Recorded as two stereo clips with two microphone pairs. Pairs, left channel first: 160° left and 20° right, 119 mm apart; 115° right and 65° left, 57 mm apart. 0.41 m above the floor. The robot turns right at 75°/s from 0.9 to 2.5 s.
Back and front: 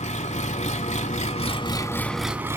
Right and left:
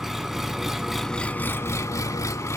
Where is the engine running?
150° left, 0.7 m; by 2.6 s 90° right, 0.7 m.